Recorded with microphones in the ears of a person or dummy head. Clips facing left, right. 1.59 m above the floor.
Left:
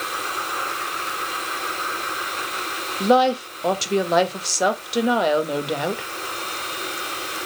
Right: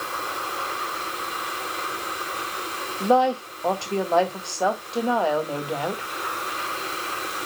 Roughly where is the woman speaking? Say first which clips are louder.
Left 2 dB; left.